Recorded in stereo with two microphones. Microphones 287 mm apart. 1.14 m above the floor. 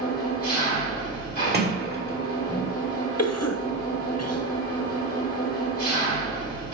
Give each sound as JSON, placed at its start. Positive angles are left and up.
{"t": 0.0, "sound": "an engine running", "side_deg": 30, "distance_m": 3.0}
{"t": 1.5, "sound": "a sliding door", "side_deg": -35, "distance_m": 1.1}
{"t": 3.2, "sound": "a cough", "side_deg": 60, "distance_m": 0.8}